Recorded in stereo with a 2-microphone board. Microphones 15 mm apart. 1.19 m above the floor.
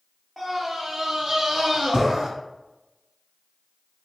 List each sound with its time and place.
0.4 s a scream: 30° right (ahead or behind), 0.8 m; by 2.3 s 45° right (ahead or behind), 1.5 m